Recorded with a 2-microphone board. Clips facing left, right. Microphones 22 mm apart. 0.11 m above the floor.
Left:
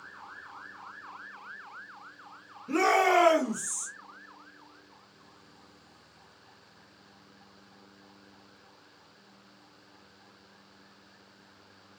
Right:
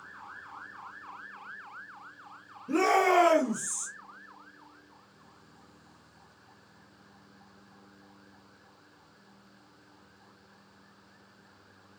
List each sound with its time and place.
2.7 s a shout: 25° left (ahead or behind), 1.6 m; by 3.9 s 20° right (ahead or behind), 1.5 m